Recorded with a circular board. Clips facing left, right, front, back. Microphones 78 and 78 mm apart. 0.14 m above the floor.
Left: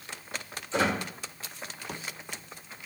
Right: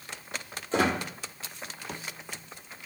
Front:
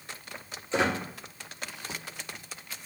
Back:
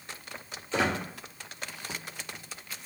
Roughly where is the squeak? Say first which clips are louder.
Right 1 dB, front 1 dB; ahead right.